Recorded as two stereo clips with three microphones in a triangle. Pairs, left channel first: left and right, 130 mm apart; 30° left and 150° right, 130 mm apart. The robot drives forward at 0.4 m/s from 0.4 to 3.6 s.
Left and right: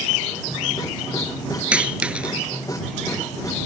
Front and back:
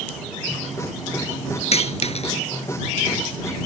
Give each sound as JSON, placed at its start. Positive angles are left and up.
{"t": 1.7, "sound": "a dropped coin", "azimuth_deg": -10}